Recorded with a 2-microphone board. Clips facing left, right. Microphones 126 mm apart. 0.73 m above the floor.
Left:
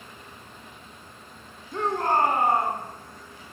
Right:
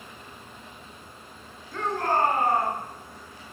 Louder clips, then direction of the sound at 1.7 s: Left 2 dB; 20° left (ahead or behind).